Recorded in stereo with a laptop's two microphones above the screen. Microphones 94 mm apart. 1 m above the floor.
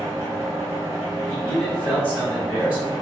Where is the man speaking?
15° right (ahead or behind), 1.7 m.